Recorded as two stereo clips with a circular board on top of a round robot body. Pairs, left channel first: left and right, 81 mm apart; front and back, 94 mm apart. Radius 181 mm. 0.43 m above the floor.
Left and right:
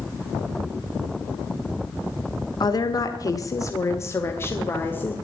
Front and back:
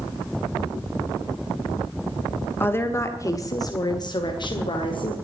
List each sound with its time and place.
2.6 s a woman speaking: 65° left, 1.5 m; by 5.1 s 25° left, 2 m